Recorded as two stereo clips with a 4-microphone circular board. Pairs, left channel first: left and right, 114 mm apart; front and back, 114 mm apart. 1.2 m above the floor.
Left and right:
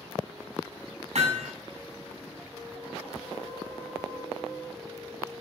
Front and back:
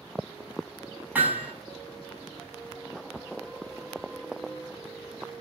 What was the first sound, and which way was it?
Hammering, 105° right.